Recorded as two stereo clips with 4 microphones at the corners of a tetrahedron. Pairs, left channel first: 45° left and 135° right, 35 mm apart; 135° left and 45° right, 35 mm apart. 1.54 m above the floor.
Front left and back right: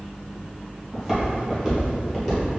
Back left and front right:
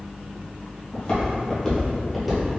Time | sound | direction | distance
0.9 | footsteps | 140° left | 1.7 m